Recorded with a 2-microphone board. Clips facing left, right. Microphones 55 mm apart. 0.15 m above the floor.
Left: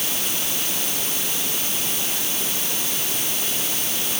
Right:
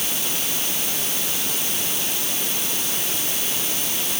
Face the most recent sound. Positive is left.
No sound to turn to.